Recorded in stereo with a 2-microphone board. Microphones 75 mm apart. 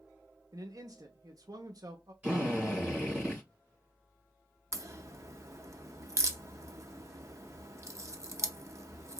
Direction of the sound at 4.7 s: 45° right (ahead or behind).